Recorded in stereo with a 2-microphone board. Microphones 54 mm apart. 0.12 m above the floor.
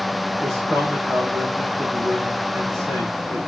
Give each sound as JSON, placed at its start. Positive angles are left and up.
{"t": 0.4, "sound": "a man speaking", "side_deg": -75, "distance_m": 7.5}